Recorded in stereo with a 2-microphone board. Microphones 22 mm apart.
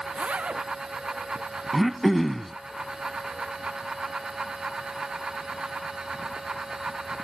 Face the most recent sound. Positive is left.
turn(degrees=0)  # may be behind; listen again after turning